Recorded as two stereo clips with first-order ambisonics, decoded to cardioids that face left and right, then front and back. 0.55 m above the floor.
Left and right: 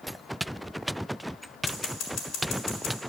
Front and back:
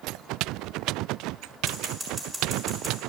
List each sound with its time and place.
1.7 s scissors: 105° left, 1.7 m